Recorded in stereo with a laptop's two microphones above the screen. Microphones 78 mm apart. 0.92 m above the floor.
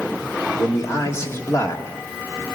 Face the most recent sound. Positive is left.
turn(degrees=40)  # may be behind; listen again after turning